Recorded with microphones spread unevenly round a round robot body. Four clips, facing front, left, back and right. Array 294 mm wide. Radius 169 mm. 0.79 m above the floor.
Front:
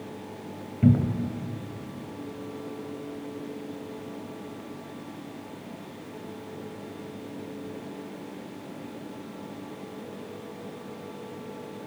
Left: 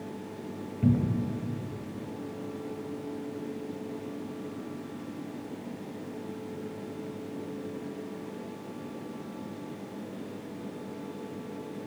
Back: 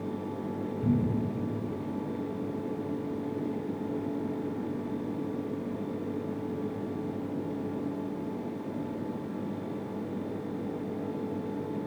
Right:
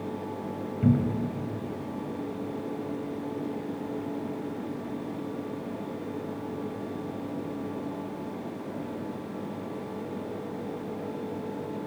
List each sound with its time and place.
0.8 s a cupboard door: 10° right, 2.5 m